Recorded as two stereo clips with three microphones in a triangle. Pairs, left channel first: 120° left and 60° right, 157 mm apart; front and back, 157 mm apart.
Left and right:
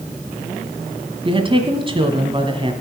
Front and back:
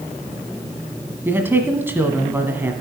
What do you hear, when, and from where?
1.2 s a woman speaking: 105° right, 1.6 m